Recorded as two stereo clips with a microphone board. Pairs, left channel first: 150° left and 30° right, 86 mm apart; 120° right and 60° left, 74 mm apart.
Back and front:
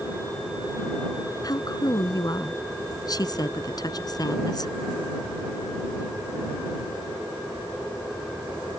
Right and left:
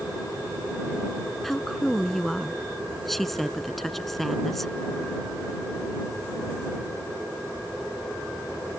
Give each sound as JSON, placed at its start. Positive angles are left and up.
{"t": 1.4, "sound": "a woman speaking", "azimuth_deg": 155}